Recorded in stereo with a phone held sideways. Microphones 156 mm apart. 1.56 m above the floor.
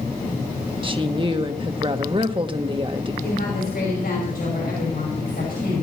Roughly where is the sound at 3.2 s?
Left.